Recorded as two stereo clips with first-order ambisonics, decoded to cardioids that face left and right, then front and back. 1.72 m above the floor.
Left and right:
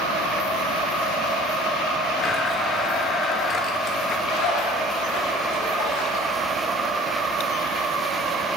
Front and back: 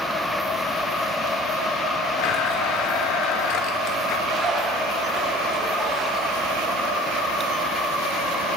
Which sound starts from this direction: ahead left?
A blender, at 2.2 s.